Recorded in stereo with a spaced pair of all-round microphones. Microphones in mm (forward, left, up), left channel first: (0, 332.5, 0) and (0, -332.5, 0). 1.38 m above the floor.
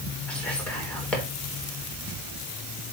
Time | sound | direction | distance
0.3 | whispering | centre (ahead or behind) | 3.5 m